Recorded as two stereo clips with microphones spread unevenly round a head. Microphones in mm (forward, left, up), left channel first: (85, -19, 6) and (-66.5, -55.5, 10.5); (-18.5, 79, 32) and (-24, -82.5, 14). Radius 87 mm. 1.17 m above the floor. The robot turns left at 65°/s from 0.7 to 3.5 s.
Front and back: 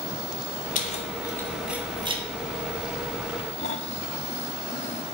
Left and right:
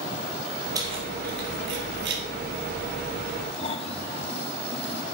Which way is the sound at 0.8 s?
20° right.